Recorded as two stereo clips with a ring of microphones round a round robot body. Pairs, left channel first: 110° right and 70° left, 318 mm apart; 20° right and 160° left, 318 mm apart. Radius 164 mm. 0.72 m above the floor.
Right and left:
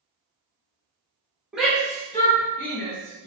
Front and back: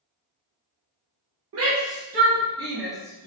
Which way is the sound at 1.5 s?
155° left.